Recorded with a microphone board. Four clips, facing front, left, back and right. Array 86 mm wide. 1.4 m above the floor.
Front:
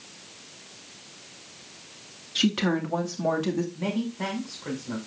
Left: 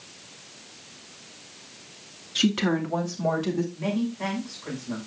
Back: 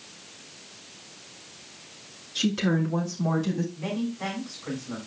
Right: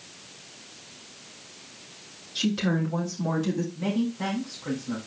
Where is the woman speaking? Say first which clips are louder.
Left 2 dB, even; 50° left, 2 m; by 3.6 s 15° left, 2 m.